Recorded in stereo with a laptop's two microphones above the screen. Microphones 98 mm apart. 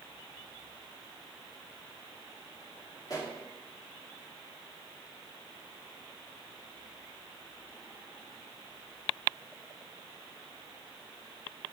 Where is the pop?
35° left (ahead or behind), 2.5 m.